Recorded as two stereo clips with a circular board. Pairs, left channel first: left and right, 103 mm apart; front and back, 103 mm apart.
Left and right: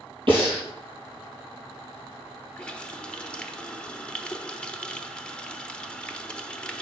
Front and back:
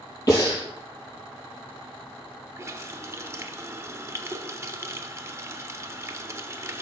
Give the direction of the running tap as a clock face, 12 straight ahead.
7 o'clock.